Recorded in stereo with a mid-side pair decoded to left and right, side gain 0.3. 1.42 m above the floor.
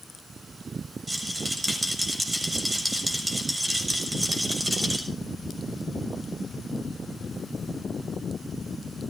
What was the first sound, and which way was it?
A rattle, 25° right.